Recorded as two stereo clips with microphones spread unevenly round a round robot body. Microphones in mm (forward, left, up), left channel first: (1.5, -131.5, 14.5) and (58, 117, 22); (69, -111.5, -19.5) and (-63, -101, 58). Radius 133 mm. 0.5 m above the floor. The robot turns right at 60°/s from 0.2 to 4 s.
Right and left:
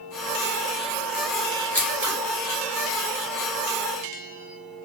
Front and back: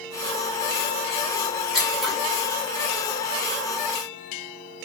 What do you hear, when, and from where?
1.7 s scissors: 30° right, 1.5 m; by 2.1 s 5° right, 1.5 m